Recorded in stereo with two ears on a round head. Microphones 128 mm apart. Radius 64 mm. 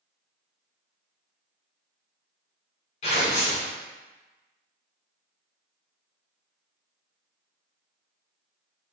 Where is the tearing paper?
45° left (ahead or behind), 1.1 m.